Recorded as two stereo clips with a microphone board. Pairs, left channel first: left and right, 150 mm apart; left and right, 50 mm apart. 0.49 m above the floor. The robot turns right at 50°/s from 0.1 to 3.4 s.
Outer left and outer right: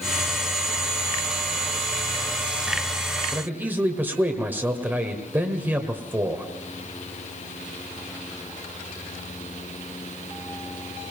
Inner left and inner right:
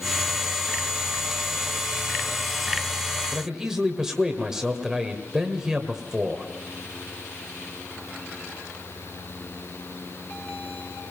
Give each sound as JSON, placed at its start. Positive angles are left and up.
{"t": 3.3, "sound": "a man speaking", "side_deg": -15, "distance_m": 1.7}